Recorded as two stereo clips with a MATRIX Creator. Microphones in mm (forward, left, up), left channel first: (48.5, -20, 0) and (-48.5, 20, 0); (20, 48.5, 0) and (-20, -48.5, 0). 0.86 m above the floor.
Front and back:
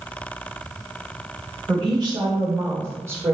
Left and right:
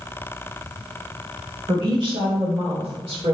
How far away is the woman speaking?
About 2 m.